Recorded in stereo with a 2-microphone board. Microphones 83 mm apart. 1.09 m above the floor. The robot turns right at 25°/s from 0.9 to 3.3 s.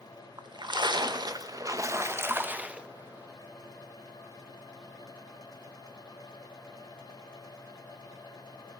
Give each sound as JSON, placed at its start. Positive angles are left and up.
{"t": 0.4, "sound": "a splash", "azimuth_deg": -60, "distance_m": 0.7}